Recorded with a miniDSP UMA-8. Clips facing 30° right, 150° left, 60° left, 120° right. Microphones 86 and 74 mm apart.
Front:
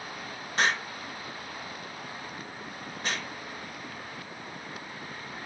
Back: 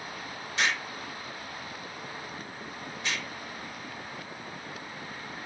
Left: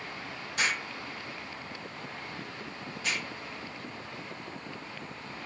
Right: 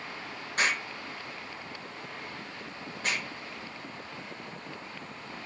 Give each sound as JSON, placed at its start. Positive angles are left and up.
{"t": 0.6, "sound": "an explosion", "azimuth_deg": -75, "distance_m": 3.0}